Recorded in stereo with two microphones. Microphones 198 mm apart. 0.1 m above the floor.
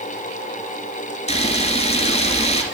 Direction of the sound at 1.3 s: 35° left (ahead or behind).